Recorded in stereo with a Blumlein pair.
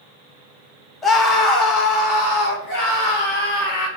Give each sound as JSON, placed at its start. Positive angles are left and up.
{"t": 1.0, "sound": "a scream", "azimuth_deg": 15, "distance_m": 0.7}